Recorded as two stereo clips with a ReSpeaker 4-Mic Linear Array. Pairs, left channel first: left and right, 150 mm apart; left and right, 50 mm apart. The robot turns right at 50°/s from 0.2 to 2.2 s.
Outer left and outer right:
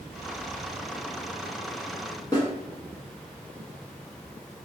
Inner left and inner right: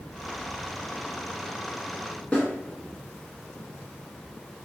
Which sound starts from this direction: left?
A snare drum, at 2.3 s.